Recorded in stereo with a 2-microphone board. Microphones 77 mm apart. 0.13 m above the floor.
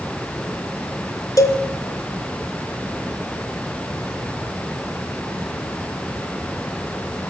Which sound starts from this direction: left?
A cowbell, at 1.4 s.